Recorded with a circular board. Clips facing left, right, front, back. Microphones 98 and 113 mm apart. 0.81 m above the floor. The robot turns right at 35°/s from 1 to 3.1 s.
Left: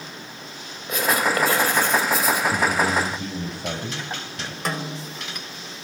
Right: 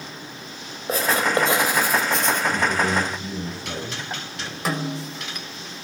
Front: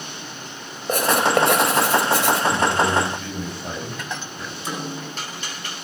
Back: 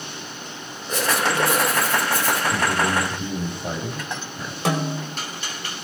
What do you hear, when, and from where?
0.9 s writing: 40° right, 5 m; by 2.4 s 10° left, 5 m
2.5 s a man speaking: 90° left, 6 m; by 4.5 s 110° left, 6 m
4.7 s a snare drum: straight behind, 4.5 m